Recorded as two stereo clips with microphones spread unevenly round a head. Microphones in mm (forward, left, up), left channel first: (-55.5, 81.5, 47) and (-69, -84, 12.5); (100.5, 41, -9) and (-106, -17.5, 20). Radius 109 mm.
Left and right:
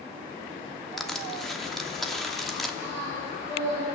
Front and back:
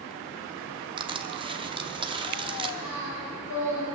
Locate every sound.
1.0 s crushing: 155° left, 0.8 m
2.8 s singing: 5° left, 7 m